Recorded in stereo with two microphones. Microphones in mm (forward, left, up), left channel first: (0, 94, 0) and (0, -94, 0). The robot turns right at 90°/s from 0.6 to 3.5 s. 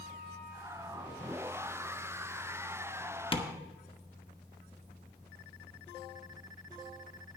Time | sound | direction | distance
3.3 | tapping | 30° left (ahead or behind) | 1.0 m